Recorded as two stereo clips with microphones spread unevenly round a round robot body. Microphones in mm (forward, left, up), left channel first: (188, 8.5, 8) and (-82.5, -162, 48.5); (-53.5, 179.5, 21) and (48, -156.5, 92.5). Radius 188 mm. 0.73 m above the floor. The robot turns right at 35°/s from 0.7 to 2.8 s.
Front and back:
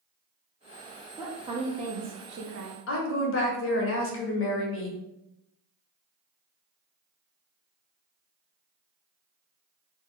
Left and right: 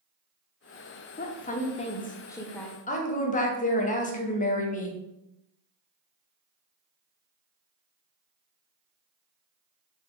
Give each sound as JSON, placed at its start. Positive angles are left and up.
{"t": 1.2, "sound": "a woman speaking", "azimuth_deg": 125, "distance_m": 0.5}
{"t": 2.9, "sound": "a woman speaking", "azimuth_deg": 55, "distance_m": 0.6}